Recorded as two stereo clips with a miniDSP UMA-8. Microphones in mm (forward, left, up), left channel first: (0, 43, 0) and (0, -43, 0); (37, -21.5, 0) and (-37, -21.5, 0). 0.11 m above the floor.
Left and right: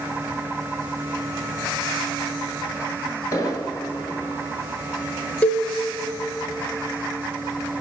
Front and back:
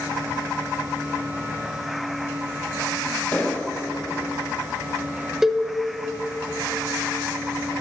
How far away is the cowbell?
About 0.5 m.